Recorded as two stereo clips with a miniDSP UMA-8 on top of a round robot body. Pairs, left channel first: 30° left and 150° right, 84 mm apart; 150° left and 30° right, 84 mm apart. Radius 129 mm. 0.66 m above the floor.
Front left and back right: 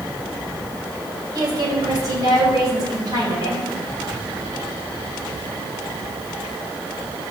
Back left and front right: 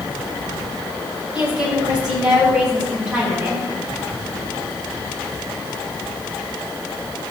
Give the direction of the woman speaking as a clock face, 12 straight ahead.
4 o'clock.